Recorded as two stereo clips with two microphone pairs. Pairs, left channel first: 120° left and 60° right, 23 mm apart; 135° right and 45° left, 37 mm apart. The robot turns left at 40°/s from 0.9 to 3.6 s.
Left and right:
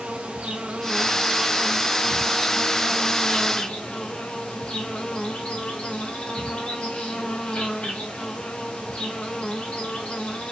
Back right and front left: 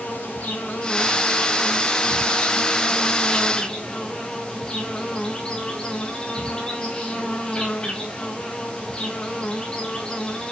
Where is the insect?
90° right, 3 m; by 10.5 s 160° left, 3 m.